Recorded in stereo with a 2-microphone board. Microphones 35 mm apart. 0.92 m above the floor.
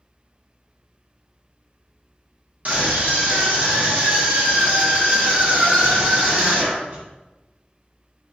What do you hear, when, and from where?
2.6 s a scream: 50° right (ahead or behind), 1.1 m